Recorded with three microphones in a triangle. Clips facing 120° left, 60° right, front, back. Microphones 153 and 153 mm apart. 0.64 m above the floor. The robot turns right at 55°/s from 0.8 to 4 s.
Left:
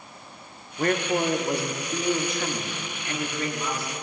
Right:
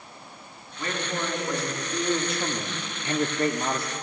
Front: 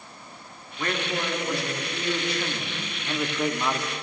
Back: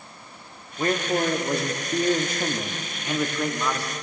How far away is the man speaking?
About 1.0 m.